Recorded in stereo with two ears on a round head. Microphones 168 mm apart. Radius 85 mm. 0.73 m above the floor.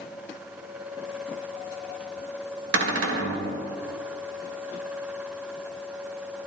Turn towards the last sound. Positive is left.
turn(degrees=-75)  # may be behind; listen again after turning